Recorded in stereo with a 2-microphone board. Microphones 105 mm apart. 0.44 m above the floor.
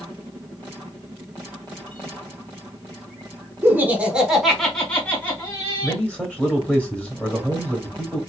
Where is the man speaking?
10° left (ahead or behind), 1.0 m.